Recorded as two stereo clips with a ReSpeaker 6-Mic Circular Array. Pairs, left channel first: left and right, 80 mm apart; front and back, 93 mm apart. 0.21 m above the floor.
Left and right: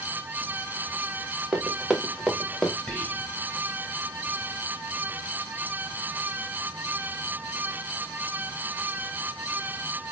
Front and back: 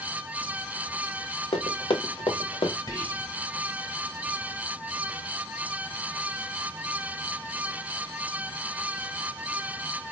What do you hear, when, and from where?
1.5 s running footsteps: 15° right, 1.7 m; by 2.8 s 10° left, 1.7 m
2.9 s whispering: 25° left, 2.5 m